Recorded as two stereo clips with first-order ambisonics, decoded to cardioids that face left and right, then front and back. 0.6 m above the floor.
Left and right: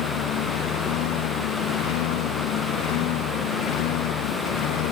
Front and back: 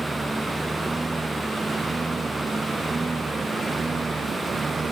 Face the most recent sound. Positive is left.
turn(degrees=105)